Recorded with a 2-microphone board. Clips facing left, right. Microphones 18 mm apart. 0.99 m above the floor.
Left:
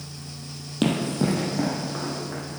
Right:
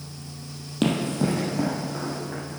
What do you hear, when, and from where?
0.8 s running footsteps: 5° left (ahead or behind), 1.9 m; by 2.4 s 25° left (ahead or behind), 3 m